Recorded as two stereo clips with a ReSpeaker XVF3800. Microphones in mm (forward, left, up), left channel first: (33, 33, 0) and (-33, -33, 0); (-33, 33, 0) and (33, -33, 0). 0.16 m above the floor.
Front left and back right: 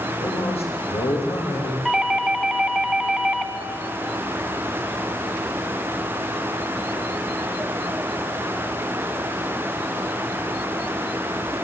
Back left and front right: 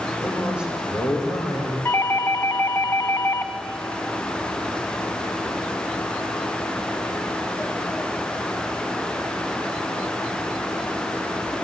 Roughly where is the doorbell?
Behind left.